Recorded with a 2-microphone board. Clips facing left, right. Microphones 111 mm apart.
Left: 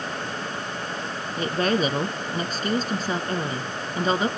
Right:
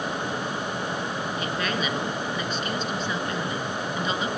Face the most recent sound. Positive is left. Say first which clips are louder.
# left 8 dB
turn(degrees=40)  # may be behind; listen again after turning